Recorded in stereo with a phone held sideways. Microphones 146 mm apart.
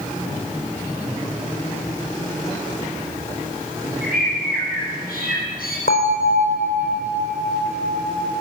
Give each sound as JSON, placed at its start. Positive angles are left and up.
{"t": 4.0, "sound": "a bird", "side_deg": 85, "distance_m": 8.5}
{"t": 5.9, "sound": "a bell", "side_deg": 75, "distance_m": 3.5}